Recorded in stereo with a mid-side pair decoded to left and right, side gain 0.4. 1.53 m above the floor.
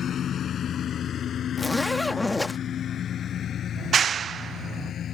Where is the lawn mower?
65° left.